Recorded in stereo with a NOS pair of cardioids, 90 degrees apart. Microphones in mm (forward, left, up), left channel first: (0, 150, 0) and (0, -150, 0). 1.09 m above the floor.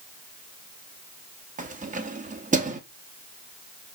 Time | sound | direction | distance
1.6 | keys jangling | 25° right | 1.0 m